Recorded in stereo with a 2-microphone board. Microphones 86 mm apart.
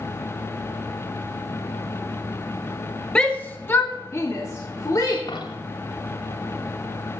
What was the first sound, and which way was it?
A shout, 10° left (ahead or behind).